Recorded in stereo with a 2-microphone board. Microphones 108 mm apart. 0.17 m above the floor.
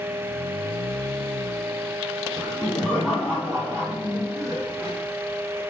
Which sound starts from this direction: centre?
Laughter, at 2.4 s.